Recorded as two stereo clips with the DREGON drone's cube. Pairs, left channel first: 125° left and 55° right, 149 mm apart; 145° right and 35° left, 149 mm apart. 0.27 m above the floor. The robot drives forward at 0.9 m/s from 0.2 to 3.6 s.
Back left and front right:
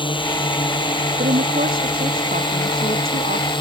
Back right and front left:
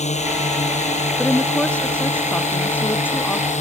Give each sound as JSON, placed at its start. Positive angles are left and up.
{"t": 0.0, "sound": "a drone", "azimuth_deg": 180}
{"t": 1.2, "sound": "a woman speaking", "azimuth_deg": -65}